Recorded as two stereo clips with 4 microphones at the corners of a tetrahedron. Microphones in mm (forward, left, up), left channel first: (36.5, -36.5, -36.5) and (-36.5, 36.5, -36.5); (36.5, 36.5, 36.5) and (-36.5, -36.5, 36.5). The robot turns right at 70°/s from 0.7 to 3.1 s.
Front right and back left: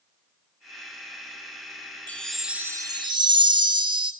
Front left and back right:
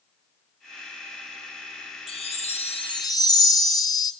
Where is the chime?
25° left, 0.7 m; by 4.1 s 100° left, 0.7 m.